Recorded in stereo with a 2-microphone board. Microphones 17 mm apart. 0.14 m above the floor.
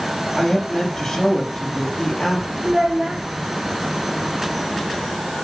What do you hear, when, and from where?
0.4 s a woman speaking: 30° left (ahead or behind), 4 m
2.6 s a child speaking: 60° right (ahead or behind), 5.5 m